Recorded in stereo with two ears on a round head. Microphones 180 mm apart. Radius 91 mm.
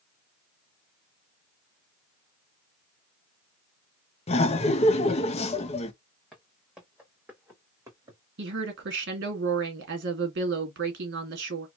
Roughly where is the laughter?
Left.